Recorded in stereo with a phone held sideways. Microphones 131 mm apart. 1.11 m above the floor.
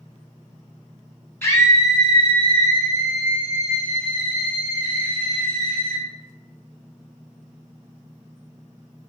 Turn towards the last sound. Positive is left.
turn(degrees=85)